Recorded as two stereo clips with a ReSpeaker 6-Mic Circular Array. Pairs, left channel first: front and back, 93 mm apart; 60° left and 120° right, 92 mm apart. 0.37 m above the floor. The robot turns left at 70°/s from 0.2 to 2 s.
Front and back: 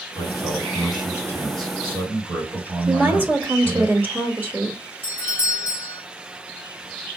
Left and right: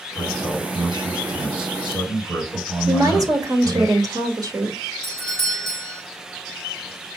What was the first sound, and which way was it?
A man speaking, 35° right.